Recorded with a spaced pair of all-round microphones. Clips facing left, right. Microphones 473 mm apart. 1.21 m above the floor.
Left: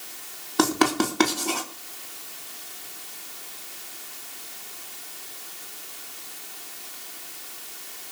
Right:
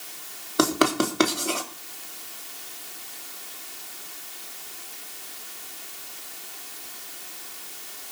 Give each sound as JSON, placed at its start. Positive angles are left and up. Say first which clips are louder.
{"t": 0.6, "sound": "writing", "louder": "even", "side_deg": 10, "distance_m": 3.5}